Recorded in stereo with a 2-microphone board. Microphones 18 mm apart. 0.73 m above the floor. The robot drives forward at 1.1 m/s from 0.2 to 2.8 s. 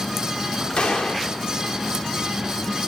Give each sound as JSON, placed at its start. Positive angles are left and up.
{"t": 0.8, "sound": "a gunshot", "side_deg": 80, "distance_m": 1.0}